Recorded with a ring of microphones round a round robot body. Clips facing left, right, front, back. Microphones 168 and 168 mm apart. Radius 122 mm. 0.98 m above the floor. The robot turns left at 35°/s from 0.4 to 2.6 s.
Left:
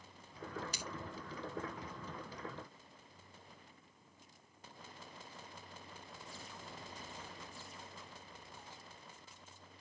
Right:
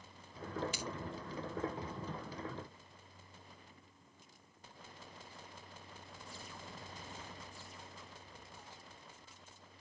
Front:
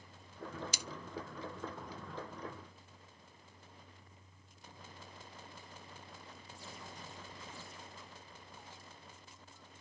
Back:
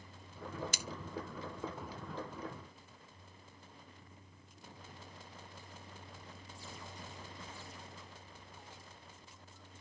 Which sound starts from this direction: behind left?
Scissors, at 0.7 s.